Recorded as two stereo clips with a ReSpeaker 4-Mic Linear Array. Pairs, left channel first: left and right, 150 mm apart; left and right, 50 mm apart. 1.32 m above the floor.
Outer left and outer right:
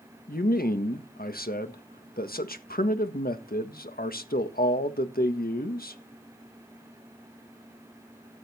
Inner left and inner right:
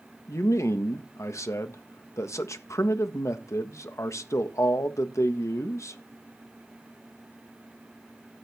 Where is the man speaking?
80° left, 1.5 m.